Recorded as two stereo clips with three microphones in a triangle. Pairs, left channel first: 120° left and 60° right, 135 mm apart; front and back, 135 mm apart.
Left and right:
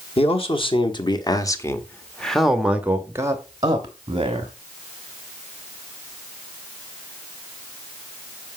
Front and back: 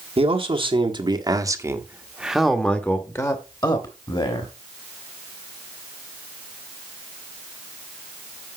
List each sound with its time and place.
0.2 s a man speaking: 150° left, 1.5 m; by 4.5 s 30° right, 1.5 m